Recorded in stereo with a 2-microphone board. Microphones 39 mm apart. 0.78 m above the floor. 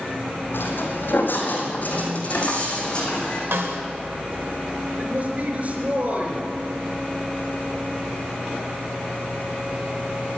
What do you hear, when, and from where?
0.5 s footsteps: 70° left (ahead or behind), 2.5 m; by 3.4 s 20° left (ahead or behind), 3.5 m
3.5 s a snare drum: 90° right, 1.8 m
5.0 s a man speaking: 40° right (ahead or behind), 4 m